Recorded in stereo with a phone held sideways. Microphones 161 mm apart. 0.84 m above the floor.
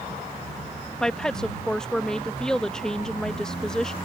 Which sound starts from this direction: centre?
A woman speaking, at 1.0 s.